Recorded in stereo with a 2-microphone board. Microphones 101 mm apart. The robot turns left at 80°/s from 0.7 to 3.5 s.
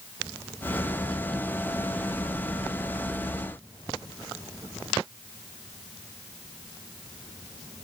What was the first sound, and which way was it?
Only background noise.